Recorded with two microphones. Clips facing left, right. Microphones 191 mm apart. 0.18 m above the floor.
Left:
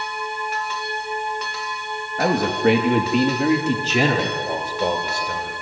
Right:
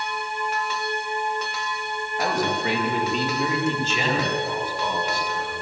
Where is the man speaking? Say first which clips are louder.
Left 6 dB; 60° left (ahead or behind), 3.5 m; by 5.5 s 75° left (ahead or behind), 5 m.